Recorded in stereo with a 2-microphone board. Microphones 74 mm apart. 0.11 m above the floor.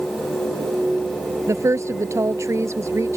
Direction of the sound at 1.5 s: 40° right (ahead or behind).